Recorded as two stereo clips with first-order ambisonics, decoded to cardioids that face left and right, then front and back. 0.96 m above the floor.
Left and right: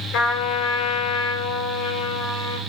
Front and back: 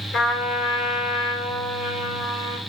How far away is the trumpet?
About 4.5 m.